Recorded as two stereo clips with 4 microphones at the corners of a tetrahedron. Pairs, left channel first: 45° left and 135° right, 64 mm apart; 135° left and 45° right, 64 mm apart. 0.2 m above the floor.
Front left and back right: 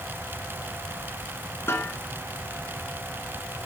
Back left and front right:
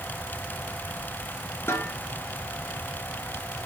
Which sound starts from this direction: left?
A snare drum, at 1.7 s.